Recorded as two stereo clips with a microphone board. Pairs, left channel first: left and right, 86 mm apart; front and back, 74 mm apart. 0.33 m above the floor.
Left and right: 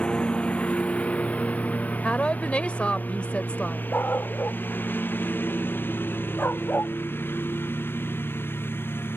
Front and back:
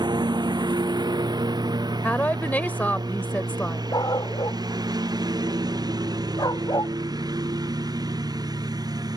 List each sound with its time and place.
0.0 s a lawn mower: 170° left; by 9.2 s 155° left
2.0 s a woman speaking: 30° left
3.9 s a dog barking: 25° left